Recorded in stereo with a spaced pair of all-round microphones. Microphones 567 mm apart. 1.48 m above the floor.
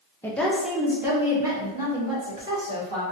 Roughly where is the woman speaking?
Centre.